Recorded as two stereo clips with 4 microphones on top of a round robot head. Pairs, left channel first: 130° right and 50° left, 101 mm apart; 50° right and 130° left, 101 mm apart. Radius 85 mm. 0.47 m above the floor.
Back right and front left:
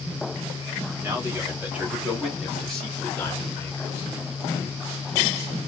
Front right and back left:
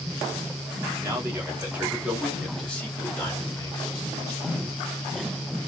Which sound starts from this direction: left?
A man speaking, at 1.0 s.